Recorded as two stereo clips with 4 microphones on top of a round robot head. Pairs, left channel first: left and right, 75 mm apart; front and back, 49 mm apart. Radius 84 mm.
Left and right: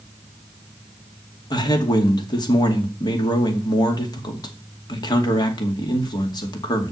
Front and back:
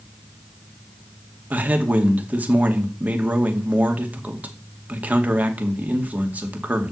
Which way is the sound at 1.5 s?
120° left.